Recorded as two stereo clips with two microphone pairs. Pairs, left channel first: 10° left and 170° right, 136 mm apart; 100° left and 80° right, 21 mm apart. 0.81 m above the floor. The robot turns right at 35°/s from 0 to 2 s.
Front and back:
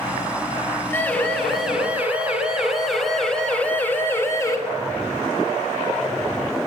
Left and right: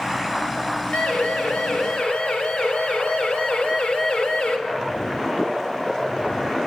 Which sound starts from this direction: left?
A siren, at 0.9 s.